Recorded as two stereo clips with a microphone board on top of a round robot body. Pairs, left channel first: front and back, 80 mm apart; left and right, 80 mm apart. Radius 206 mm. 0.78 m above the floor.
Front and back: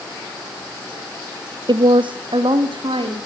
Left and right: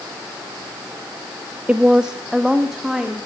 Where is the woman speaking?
165° right, 0.7 m; by 3.2 s 175° right, 2.5 m.